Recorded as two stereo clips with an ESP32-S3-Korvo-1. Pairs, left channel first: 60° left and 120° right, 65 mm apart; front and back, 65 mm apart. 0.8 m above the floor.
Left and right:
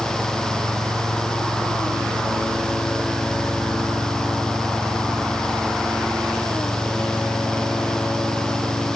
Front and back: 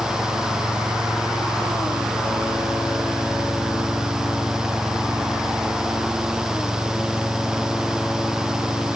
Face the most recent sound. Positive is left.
No sound to turn to.